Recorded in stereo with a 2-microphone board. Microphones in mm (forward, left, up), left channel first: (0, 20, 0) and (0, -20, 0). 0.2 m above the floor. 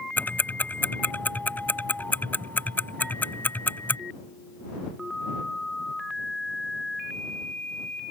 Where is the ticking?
50° left (ahead or behind).